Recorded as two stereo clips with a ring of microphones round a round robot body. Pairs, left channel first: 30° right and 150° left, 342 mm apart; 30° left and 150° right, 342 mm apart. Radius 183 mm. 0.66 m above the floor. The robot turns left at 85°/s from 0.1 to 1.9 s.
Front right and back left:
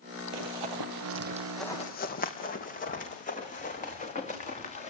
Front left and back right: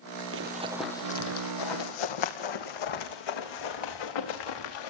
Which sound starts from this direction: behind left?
Running footsteps, at 0.3 s.